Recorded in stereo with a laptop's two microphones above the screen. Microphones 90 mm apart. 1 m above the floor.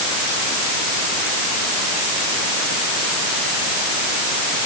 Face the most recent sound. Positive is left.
No sound to turn to.